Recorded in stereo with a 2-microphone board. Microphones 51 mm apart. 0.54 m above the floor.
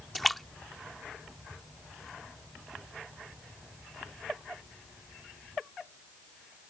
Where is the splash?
Centre (ahead or behind).